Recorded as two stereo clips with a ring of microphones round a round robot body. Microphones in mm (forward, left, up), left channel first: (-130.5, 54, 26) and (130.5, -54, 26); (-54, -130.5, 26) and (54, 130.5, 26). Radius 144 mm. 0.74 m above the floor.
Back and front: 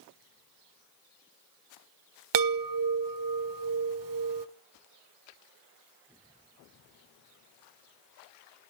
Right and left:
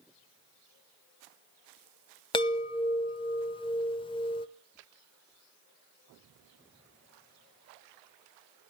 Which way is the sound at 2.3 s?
40° right.